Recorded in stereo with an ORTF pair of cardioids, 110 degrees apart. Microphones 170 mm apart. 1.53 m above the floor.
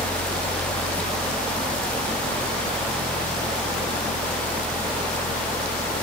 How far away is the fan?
About 0.7 m.